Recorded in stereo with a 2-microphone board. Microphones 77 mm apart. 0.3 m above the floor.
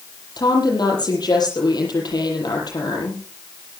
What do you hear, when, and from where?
0.4 s a woman speaking: 60° left (ahead or behind), 8 m